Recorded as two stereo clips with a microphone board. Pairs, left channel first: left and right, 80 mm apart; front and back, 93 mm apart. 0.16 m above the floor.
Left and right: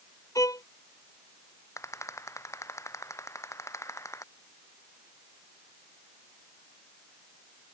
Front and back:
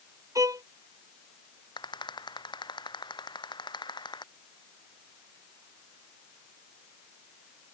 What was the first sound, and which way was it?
A violin, 130° left.